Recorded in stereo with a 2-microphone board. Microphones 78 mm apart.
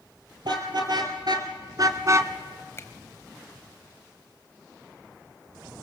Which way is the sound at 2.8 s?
35° left (ahead or behind).